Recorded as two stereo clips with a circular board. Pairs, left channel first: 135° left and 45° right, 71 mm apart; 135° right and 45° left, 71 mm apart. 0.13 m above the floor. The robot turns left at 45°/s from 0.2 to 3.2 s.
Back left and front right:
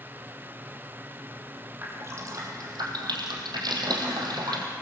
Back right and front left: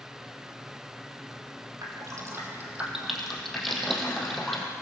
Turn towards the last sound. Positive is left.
turn(degrees=-45)